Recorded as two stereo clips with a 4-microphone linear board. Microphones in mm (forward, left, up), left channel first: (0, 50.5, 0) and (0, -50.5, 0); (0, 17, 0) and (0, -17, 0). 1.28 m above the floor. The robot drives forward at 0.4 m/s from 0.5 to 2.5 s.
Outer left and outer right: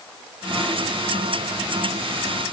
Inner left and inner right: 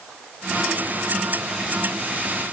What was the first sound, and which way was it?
Only background noise.